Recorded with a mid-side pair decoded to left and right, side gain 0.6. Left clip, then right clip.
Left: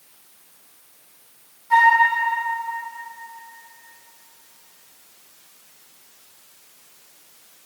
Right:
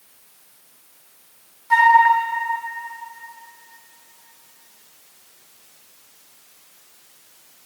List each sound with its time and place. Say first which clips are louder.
1.7 s a flute: right 2 dB; 30° right, 2 m